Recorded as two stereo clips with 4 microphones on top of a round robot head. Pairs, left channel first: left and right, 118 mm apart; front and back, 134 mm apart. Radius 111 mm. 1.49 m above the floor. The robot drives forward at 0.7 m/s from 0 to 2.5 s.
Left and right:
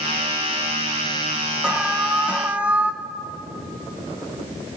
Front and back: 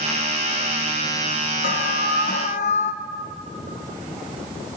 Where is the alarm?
5° right, 1.3 m; by 2.9 s 15° right, 0.8 m.